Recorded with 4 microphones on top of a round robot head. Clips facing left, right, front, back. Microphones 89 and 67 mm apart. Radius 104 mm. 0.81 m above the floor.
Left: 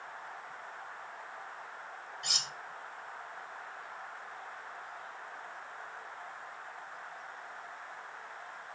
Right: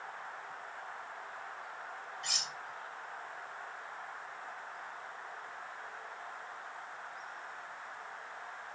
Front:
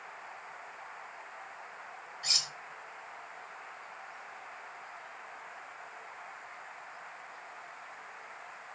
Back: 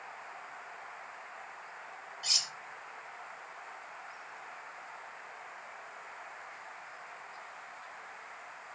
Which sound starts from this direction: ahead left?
Cutlery clinking, at 2.2 s.